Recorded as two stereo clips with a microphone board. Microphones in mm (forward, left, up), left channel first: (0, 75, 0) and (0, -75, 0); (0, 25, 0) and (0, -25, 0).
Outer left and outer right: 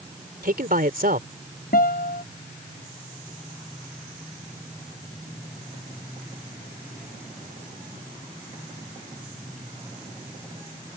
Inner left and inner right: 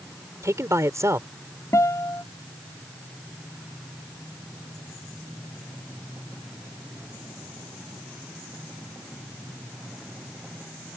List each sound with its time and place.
0.4 s a man speaking: 75° right (ahead or behind)
1.7 s a guitar: 80° left